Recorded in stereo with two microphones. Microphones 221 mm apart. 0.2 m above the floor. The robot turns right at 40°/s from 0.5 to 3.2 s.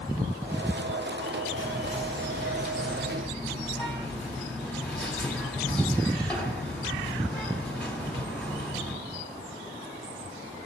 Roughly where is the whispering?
Centre.